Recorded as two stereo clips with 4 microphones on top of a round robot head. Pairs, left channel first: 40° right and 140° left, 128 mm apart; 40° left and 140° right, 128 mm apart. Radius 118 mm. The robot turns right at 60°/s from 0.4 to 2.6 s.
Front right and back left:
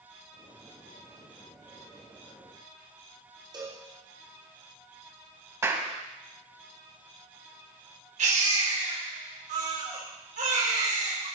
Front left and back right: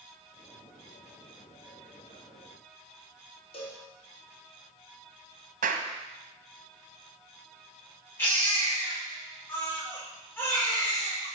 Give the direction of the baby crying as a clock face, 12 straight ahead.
8 o'clock.